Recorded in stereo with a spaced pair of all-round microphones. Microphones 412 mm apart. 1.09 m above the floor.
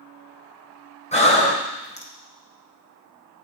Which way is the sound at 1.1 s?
15° left (ahead or behind).